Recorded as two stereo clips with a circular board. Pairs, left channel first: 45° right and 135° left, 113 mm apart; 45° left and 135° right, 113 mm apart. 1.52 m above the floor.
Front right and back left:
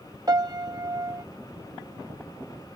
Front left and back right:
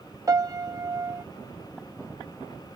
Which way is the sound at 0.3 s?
Straight behind.